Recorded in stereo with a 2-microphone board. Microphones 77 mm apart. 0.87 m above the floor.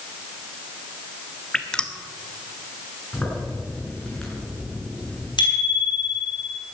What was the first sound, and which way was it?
Dripping, 10° left (ahead or behind).